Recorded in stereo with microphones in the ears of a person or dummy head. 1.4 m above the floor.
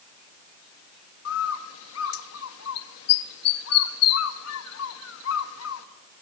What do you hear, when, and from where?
1.2 s a bird: 80° left, 0.7 m